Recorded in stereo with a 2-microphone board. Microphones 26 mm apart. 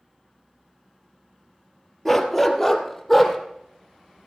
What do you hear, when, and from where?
2.0 s a dog barking: 5° left (ahead or behind), 1.5 m; by 3.4 s centre (ahead or behind), 2.5 m